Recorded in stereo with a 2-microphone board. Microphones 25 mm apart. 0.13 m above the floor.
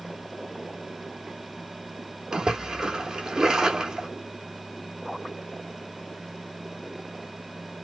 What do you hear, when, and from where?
2.3 s a splash: 25° right (ahead or behind), 0.7 m